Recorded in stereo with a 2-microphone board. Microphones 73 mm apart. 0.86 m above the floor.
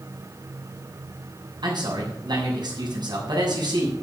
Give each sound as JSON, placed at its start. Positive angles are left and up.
{"t": 1.6, "sound": "a man speaking", "side_deg": -75, "distance_m": 6.5}